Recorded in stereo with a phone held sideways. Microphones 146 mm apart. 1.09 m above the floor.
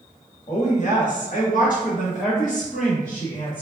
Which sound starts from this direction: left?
A woman speaking, at 0.5 s.